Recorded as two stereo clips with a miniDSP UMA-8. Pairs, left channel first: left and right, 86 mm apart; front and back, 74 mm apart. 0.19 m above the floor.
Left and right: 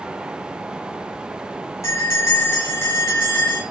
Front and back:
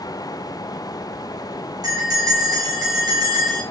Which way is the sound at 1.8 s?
145° left.